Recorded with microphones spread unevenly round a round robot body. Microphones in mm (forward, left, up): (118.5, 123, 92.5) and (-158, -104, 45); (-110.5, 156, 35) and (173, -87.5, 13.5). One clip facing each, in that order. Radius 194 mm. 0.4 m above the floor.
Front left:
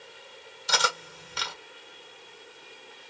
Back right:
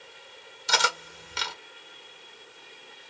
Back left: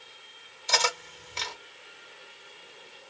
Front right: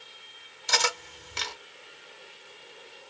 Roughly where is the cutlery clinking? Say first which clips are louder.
Even, even; right.